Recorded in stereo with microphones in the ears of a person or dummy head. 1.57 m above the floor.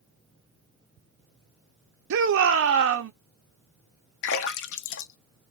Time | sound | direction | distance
2.1 | a shout | 65° right (ahead or behind) | 0.6 m
4.2 | a splash | 65° left (ahead or behind) | 0.7 m